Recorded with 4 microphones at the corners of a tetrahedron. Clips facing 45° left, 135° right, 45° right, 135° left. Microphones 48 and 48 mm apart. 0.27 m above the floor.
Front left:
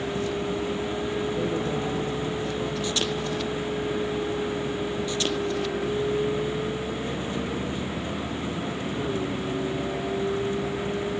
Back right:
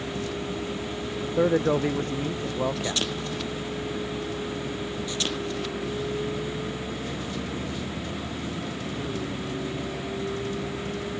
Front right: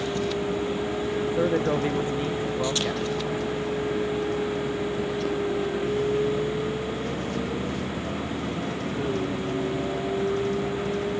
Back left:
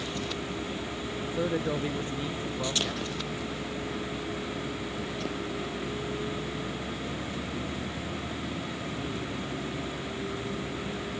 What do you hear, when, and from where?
0.0 s a vehicle: 20° right
1.2 s a man speaking: 110° right